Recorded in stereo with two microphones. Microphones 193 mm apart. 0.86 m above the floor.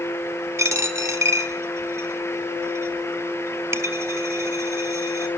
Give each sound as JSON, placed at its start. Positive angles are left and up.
{"t": 0.6, "sound": "a dropped coin", "side_deg": -15, "distance_m": 1.5}